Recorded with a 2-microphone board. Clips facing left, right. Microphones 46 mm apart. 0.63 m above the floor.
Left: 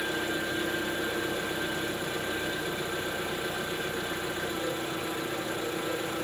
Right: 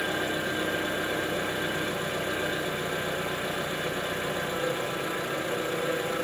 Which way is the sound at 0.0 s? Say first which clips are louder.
Right 2 dB; 50° right (ahead or behind).